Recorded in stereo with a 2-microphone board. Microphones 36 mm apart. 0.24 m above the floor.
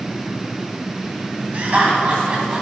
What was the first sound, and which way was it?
Laughter, 40° right (ahead or behind).